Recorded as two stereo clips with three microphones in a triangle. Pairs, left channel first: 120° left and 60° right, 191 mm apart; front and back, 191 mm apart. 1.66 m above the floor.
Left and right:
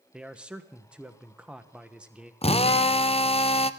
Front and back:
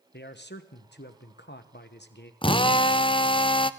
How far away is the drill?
About 0.5 m.